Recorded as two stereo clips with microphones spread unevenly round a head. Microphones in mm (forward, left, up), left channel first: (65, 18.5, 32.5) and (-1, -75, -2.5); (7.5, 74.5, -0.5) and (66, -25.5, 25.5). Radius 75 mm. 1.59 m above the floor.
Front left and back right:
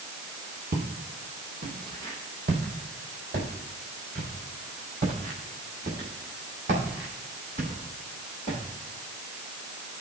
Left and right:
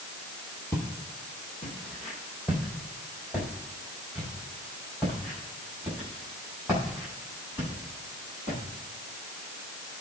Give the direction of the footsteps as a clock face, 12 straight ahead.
5 o'clock.